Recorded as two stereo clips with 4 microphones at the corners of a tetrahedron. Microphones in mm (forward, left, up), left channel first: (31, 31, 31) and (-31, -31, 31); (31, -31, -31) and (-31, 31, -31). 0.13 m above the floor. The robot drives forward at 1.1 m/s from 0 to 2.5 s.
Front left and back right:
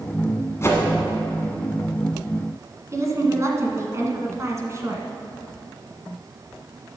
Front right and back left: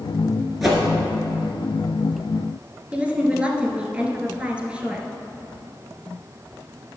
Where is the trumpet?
I don't hear a trumpet.